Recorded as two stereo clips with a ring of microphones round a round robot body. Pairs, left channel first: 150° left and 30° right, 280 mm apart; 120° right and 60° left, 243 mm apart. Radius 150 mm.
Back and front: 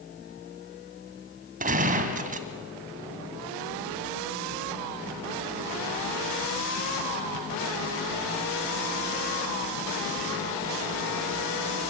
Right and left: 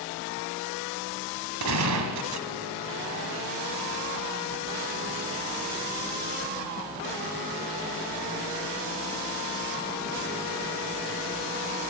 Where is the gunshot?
35° left, 1.7 m.